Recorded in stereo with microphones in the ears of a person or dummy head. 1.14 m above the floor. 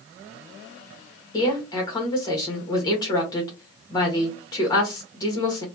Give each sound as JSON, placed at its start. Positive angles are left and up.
{"t": 1.3, "sound": "a woman speaking", "side_deg": 20, "distance_m": 1.3}